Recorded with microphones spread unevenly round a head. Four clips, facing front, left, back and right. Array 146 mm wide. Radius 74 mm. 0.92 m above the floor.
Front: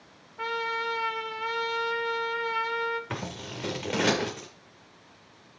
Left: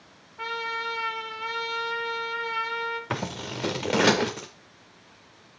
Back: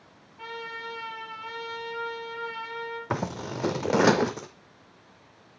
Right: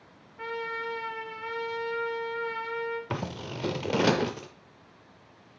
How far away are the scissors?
About 0.7 m.